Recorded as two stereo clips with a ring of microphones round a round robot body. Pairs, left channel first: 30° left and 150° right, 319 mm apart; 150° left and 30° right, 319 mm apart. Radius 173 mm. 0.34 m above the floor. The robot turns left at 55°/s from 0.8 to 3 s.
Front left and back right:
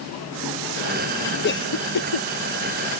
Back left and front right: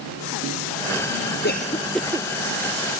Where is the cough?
90° left; by 2.3 s 45° left.